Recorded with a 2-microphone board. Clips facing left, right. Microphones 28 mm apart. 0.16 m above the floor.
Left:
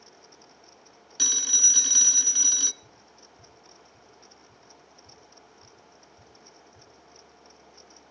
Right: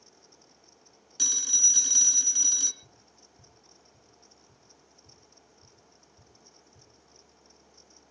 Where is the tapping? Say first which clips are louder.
Left 5 dB; 20° right (ahead or behind), 8.5 m.